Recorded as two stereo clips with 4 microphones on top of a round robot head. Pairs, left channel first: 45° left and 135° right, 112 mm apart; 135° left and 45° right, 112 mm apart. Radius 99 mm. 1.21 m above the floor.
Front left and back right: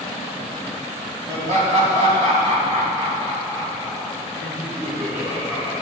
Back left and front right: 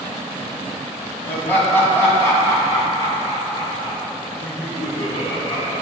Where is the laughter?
150° right, 2.5 m; by 5.7 s straight behind, 4.5 m.